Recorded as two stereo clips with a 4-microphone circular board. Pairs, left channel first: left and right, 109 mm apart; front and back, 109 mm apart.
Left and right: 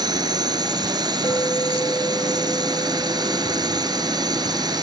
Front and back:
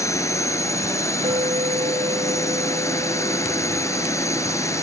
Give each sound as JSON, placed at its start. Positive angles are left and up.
{"t": 0.0, "sound": "a drone", "azimuth_deg": -55}
{"t": 1.2, "sound": "a clink", "azimuth_deg": 150}